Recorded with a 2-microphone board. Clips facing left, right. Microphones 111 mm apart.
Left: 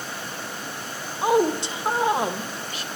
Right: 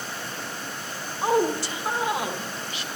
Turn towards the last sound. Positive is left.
turn(degrees=45)  # may be behind; listen again after turning